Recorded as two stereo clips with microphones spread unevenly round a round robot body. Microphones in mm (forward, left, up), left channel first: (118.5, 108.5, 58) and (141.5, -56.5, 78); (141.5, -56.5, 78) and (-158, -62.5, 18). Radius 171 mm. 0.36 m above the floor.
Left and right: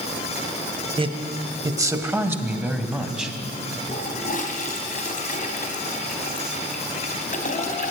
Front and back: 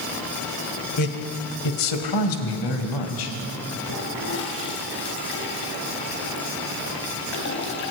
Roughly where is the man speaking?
Ahead right.